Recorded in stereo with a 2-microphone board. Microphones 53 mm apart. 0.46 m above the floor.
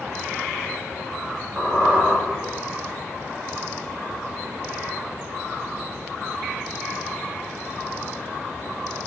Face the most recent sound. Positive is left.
turn(degrees=-25)  # may be behind; listen again after turning